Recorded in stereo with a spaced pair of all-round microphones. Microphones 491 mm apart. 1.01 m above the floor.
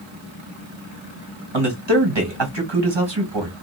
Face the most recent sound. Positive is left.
turn(degrees=-60)  # may be behind; listen again after turning